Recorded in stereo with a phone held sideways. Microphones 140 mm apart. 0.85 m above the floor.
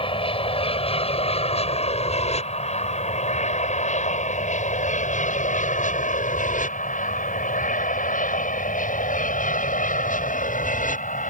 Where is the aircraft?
40° left (ahead or behind); by 11.3 s 70° left (ahead or behind).